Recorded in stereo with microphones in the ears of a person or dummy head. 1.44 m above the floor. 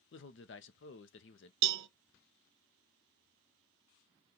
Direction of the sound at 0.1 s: 60° left (ahead or behind).